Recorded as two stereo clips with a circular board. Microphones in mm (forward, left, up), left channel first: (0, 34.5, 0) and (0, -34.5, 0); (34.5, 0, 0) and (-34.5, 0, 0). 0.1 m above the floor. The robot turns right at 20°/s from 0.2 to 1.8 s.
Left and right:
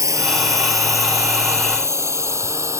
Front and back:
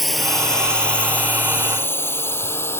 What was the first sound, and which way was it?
A drone, 90° right.